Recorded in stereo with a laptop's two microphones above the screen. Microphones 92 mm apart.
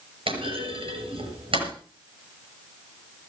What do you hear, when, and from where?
0.3 s a clunk: 75° right (ahead or behind), 6.5 m